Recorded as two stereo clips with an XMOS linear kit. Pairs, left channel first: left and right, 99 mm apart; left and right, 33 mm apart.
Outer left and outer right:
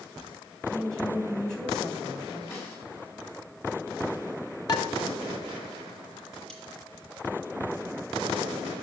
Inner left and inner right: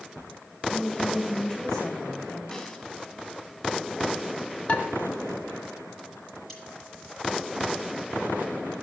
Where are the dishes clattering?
45° left (ahead or behind), 2.0 m.